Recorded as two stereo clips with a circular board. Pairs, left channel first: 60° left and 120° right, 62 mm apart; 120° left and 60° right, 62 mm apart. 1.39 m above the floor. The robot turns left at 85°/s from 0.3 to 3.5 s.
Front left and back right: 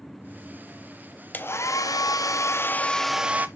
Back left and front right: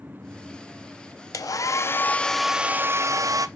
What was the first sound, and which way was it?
A hair dryer, 120° left.